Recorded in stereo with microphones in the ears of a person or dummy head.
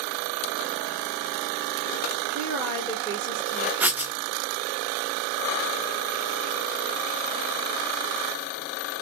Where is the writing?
15° right (ahead or behind), 0.6 m.